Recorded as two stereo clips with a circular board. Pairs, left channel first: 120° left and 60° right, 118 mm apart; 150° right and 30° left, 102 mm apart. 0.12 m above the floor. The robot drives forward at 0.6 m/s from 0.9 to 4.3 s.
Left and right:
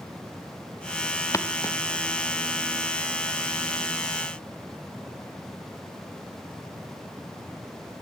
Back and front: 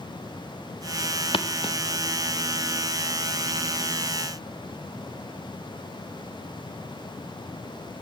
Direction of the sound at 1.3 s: 175° right.